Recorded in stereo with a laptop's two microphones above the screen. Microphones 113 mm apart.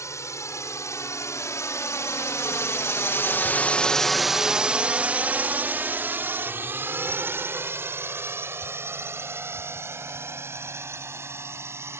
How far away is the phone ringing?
No phone ringing in this recording.